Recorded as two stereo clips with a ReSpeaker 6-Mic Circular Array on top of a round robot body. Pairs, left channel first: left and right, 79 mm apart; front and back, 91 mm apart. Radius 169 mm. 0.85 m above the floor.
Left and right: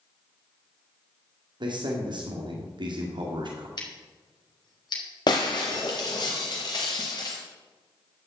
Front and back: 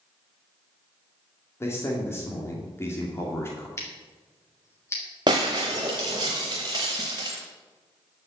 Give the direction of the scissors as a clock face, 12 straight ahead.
10 o'clock.